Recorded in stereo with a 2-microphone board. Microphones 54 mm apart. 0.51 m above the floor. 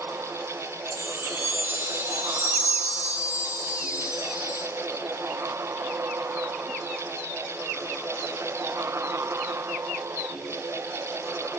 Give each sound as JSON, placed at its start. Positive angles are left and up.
{"t": 0.9, "sound": "a chime", "side_deg": -45, "distance_m": 5.5}